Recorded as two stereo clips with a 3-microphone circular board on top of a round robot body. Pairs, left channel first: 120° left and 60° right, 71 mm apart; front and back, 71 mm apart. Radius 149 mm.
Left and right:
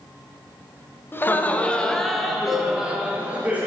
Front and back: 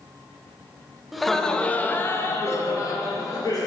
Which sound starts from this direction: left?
Laughter, at 1.1 s.